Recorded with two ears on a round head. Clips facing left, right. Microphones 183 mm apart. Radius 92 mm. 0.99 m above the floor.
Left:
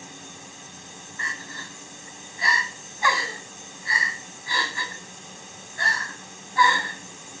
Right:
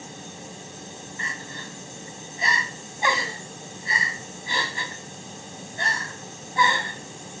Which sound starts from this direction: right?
Crying, at 1.2 s.